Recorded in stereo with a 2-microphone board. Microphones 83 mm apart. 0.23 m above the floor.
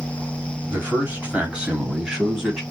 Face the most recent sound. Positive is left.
turn(degrees=0)  # may be behind; listen again after turning